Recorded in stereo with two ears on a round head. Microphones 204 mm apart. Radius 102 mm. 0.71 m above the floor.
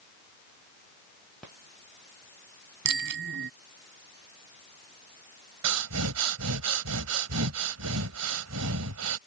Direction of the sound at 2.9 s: 50° right (ahead or behind).